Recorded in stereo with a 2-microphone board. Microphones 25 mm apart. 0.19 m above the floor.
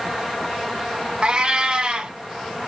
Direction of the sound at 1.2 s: 35° right (ahead or behind).